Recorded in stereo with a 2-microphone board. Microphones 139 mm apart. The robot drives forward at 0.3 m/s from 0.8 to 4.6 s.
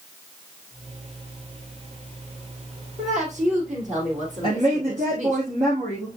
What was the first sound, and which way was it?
A woman speaking, 60° right (ahead or behind).